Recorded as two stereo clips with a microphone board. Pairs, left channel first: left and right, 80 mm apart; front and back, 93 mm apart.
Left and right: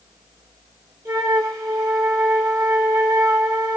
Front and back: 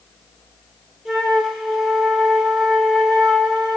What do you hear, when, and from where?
1.1 s a flute: 95° right, 0.7 m